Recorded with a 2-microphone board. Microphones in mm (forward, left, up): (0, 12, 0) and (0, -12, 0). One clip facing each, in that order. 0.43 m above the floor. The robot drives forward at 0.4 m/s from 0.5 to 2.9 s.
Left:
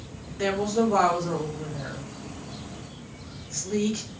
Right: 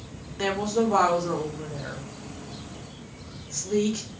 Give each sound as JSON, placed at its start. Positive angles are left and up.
{"t": 0.4, "sound": "a woman speaking", "side_deg": -25, "distance_m": 0.9}